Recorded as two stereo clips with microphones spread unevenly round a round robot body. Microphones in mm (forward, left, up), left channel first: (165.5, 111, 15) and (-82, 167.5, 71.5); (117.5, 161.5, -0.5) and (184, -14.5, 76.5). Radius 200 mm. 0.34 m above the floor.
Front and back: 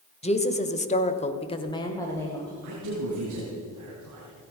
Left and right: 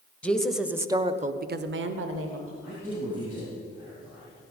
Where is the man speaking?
160° right, 3.5 m.